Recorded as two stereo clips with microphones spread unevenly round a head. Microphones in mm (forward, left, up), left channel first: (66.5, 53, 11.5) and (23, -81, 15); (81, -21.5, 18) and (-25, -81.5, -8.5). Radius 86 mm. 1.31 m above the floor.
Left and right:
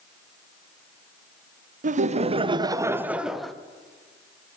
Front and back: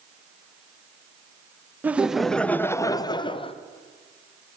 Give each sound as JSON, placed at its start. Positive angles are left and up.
{"t": 1.8, "sound": "laughter", "azimuth_deg": -75, "distance_m": 0.9}